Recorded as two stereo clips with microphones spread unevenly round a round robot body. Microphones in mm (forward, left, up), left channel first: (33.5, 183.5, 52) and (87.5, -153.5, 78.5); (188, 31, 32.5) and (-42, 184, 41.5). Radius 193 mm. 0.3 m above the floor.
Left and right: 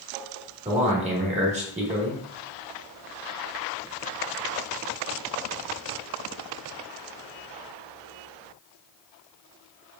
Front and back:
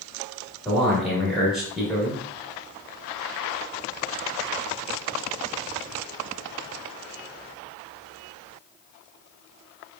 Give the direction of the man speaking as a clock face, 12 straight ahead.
4 o'clock.